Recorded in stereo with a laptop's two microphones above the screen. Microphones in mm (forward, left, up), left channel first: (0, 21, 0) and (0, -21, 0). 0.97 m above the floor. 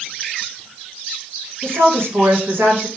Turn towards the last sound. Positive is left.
turn(degrees=-65)  # may be behind; listen again after turning